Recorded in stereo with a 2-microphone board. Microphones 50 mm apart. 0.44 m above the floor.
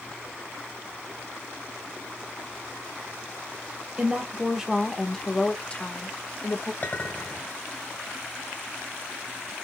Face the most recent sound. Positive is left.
turn(degrees=40)  # may be behind; listen again after turning